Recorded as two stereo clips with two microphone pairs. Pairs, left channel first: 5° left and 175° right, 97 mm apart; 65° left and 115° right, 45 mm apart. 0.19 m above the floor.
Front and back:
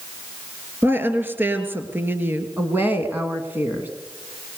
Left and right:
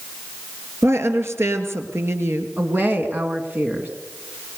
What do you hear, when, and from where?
0.8 s a woman speaking: 110° right, 3.5 m
2.6 s a woman speaking: 115° right, 2.5 m